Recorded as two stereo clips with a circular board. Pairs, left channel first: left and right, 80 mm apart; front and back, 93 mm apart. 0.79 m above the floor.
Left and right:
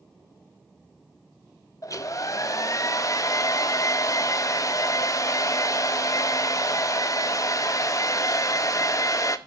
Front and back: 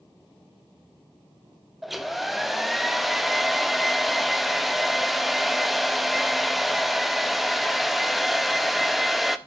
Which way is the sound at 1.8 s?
90° left.